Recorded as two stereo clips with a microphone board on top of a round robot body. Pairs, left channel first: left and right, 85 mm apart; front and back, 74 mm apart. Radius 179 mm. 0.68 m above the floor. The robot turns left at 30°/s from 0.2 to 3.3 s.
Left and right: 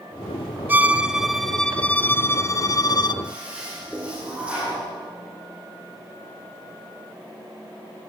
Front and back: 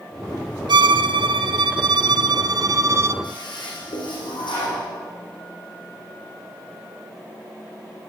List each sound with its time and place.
0.7 s a violin: 160° right, 0.8 m; by 3.1 s 125° left, 0.8 m
3.2 s a toilet flushing: 10° right, 7.5 m; by 4.8 s 15° right, 7.5 m